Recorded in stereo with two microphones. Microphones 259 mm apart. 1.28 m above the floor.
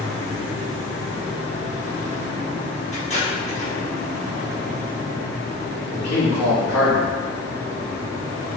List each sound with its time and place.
2.9 s tape being pulled: 25° left (ahead or behind), 1.0 m
5.9 s a man speaking: 85° left, 1.3 m